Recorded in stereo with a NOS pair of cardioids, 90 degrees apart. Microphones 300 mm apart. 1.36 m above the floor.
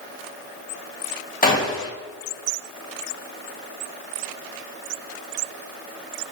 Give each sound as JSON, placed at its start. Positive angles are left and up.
{"t": 1.4, "sound": "a gunshot", "azimuth_deg": 25, "distance_m": 2.0}